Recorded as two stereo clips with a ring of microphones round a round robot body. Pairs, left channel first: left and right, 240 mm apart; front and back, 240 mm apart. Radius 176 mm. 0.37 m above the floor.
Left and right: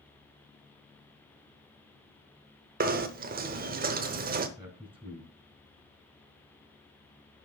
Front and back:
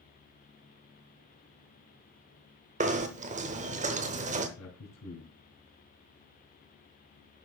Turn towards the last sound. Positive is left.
turn(degrees=-5)